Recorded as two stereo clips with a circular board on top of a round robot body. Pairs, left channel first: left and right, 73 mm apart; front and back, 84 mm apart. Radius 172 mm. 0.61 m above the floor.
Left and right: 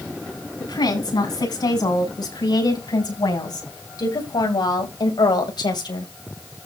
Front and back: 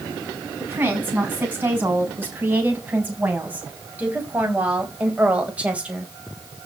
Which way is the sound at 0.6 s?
115° left.